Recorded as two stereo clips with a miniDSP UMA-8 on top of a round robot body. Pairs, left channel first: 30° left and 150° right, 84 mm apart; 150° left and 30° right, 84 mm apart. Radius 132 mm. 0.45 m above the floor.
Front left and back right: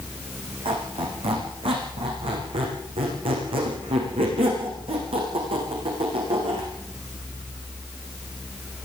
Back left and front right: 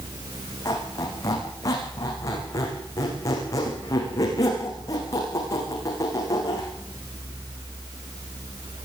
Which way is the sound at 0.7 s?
160° right.